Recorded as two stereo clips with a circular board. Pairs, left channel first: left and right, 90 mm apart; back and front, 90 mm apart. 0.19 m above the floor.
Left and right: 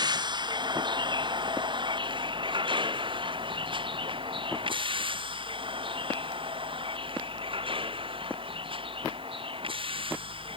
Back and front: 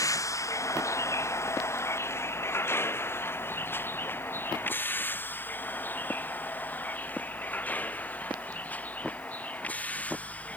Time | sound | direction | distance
0.0 | a vehicle | 130° right | ?